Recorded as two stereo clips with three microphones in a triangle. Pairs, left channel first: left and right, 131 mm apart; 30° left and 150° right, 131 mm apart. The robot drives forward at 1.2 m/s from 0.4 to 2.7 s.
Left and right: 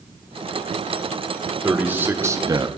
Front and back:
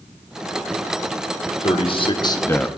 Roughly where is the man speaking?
Ahead.